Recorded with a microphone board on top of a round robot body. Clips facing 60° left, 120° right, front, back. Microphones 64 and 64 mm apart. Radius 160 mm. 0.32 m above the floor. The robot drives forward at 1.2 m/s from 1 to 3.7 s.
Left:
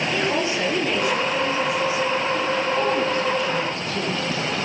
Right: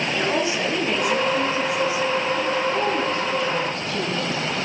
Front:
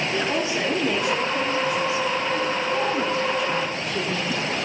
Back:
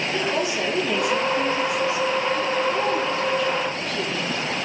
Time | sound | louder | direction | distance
0.1 | a woman speaking | right 1 dB, back 2 dB | 50° right | 8 m